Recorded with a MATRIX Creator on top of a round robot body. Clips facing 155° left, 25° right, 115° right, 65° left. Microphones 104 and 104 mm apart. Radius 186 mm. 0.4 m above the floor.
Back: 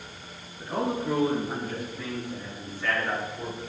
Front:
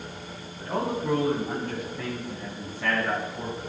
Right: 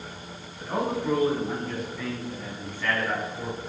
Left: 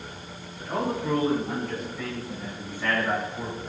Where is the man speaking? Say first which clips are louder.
Even, right 1 dB; 35° right, 6 m; by 3.6 s 5° left, 6 m.